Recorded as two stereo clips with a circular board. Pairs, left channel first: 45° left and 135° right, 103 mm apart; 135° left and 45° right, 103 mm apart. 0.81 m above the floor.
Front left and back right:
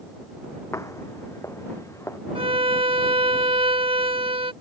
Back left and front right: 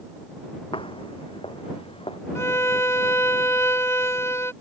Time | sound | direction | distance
0.7 | footsteps | 105° left | ?
2.4 | a violin | 160° right | ?